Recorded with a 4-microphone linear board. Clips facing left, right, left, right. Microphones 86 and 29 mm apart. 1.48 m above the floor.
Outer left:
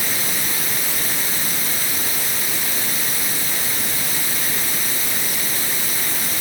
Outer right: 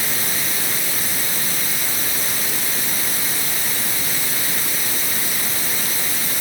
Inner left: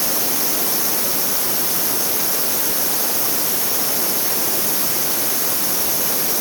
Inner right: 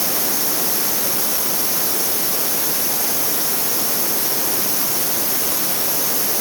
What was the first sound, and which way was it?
Only background noise.